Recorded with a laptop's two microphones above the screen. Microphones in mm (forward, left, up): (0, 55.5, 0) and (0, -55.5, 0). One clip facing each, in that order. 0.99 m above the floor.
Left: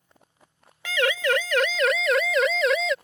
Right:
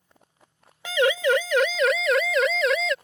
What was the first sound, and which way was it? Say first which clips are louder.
A siren: right 3 dB; 20° right (ahead or behind).